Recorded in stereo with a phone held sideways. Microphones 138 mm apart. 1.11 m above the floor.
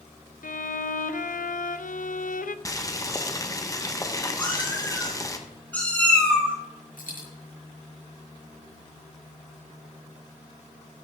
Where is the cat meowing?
10° left (ahead or behind), 5 m.